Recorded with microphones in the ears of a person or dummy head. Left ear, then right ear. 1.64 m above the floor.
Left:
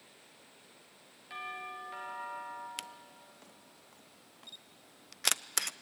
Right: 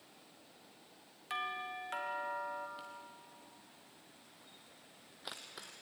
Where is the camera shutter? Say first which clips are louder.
Left 3 dB; 75° left (ahead or behind), 0.5 m.